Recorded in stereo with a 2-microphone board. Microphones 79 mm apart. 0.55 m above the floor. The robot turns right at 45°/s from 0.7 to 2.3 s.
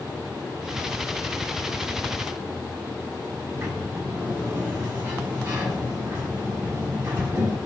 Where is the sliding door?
35° right (ahead or behind), 4.5 m.